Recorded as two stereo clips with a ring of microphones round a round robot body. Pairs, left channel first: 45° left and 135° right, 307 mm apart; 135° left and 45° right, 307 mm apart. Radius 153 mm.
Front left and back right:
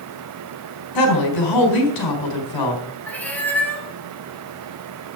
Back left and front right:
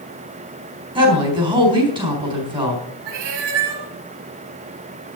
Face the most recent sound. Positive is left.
turn(degrees=-40)